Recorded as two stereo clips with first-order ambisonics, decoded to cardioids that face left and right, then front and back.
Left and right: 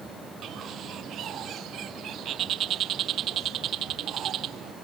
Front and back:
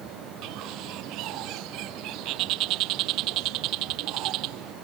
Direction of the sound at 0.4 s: 145° right.